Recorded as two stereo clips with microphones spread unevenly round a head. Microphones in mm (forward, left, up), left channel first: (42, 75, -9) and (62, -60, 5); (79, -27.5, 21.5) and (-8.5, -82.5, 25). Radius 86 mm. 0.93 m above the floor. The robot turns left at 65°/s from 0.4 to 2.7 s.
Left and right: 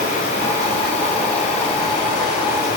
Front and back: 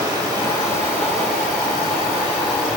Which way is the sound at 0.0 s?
95° right.